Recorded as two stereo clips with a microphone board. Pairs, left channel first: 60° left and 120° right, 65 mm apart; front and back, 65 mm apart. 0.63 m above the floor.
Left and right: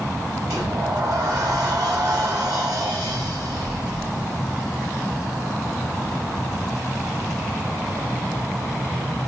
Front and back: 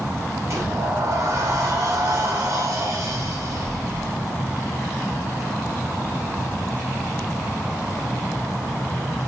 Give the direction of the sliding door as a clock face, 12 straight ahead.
5 o'clock.